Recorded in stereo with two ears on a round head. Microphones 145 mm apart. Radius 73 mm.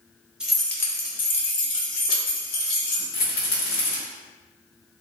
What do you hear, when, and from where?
0.4 s keys jangling: 5° right (ahead or behind), 0.8 m; by 3.0 s 75° left (ahead or behind), 1.8 m
3.1 s a rattle: 65° left (ahead or behind), 1.5 m